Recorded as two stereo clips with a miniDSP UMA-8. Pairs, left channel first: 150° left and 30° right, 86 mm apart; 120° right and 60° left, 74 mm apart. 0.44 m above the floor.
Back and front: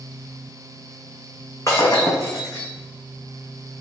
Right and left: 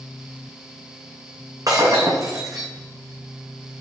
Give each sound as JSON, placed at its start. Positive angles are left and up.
{"t": 1.7, "sound": "breaking glass", "azimuth_deg": 100, "distance_m": 2.5}